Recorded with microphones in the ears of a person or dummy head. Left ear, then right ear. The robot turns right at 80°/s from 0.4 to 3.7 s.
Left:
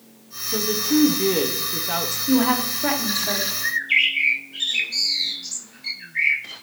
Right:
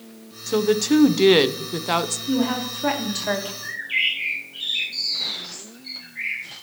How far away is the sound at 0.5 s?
About 0.6 m.